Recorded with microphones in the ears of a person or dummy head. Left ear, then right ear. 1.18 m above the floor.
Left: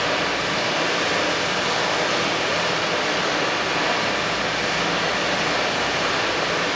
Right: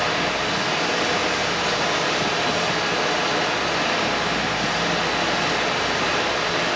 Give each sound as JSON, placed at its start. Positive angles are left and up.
{"t": 0.0, "sound": "running water", "side_deg": 25, "distance_m": 2.5}